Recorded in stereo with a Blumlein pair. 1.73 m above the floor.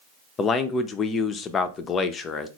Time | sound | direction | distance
0.4 | a man speaking | 25° left | 0.5 m